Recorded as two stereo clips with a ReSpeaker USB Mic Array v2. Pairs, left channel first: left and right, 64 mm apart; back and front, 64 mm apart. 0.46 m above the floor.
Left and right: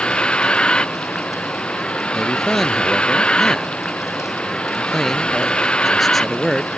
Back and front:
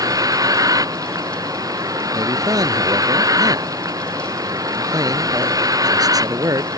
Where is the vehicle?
15° left.